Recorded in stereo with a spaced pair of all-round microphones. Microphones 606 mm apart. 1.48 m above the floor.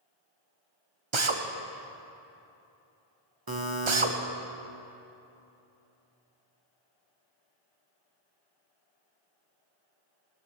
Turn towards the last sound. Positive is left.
turn(degrees=-35)  # may be behind; listen again after turning